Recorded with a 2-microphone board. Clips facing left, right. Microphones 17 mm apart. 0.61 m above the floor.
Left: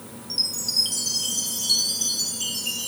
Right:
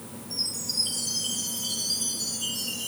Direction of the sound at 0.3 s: 70° left (ahead or behind).